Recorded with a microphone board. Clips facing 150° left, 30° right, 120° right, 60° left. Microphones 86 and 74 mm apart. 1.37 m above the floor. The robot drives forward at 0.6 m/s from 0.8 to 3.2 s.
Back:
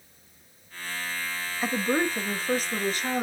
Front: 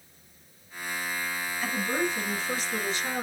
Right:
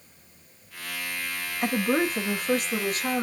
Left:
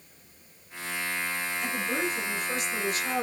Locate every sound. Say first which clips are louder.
1.6 s a woman speaking: back 4 dB, right 8 dB; 155° right, 0.8 m; by 3.2 s 170° right, 1.7 m